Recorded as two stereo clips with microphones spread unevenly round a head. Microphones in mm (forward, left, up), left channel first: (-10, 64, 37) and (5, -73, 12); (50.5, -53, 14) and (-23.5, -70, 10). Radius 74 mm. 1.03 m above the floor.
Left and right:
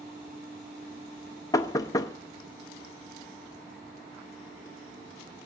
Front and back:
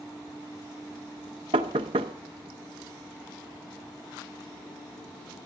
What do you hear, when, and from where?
1.5 s knocking: 165° left, 0.7 m